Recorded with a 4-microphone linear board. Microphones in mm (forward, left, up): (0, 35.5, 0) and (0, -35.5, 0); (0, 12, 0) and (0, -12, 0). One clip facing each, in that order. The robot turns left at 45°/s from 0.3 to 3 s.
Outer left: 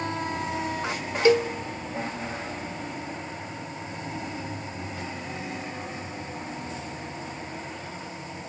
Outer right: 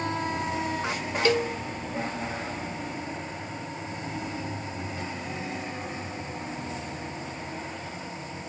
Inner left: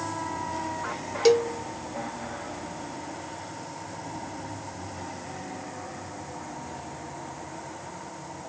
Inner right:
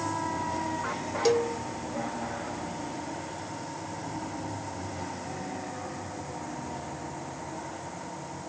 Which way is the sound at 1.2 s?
20° left (ahead or behind).